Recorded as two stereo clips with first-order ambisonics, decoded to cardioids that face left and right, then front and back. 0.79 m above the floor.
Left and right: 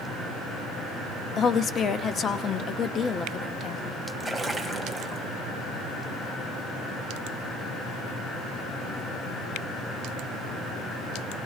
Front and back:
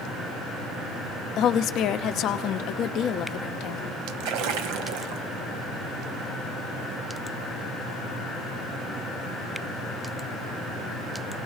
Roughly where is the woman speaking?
Ahead left.